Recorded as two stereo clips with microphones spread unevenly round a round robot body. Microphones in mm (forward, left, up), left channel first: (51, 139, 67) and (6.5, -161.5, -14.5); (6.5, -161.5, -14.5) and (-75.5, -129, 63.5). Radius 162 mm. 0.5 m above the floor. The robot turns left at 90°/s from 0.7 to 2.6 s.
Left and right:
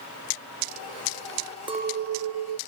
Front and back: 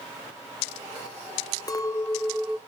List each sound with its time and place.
1.7 s a clink: 30° right, 0.7 m; by 2.6 s 110° right, 0.7 m